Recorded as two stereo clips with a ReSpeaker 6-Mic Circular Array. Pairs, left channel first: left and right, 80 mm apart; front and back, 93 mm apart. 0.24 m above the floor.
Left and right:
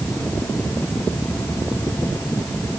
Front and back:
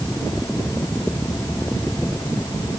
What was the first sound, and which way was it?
Only background noise.